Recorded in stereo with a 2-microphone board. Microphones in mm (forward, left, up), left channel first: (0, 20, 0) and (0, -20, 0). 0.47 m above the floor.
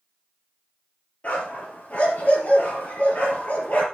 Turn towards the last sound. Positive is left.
turn(degrees=40)  # may be behind; listen again after turning